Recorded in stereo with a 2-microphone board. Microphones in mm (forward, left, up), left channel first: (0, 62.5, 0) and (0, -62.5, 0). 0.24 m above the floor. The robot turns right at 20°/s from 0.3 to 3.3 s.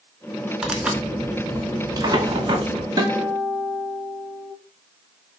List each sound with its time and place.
0.6 s tearing paper: 175° right, 0.5 m; by 2.9 s 130° right, 0.5 m
3.0 s a guitar: 30° right (ahead or behind), 0.9 m; by 4.5 s 40° right (ahead or behind), 0.9 m